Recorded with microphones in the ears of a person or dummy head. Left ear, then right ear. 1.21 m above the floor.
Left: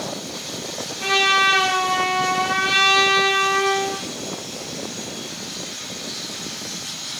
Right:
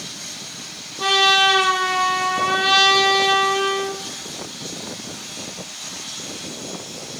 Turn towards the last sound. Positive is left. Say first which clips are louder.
# right 2 dB
turn(degrees=-40)  # may be behind; listen again after turning